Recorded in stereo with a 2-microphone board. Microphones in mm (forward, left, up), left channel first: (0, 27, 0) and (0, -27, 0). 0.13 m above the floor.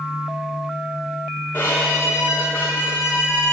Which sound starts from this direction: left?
A violin, at 1.5 s.